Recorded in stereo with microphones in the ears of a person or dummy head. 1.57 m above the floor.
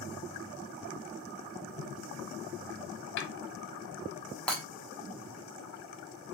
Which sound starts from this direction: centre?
Breaking glass, at 4.5 s.